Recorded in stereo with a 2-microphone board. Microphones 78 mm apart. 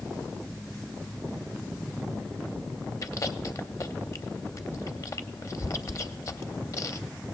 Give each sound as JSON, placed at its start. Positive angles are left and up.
{"t": 3.0, "sound": "chewing", "side_deg": 45, "distance_m": 0.6}